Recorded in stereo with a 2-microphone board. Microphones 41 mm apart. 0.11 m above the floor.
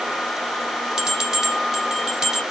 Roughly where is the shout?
No shout in this recording.